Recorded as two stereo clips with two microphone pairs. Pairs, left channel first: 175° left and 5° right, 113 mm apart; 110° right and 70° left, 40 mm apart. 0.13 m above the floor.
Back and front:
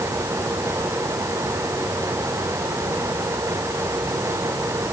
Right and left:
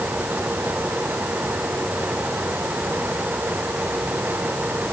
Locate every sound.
Only background noise.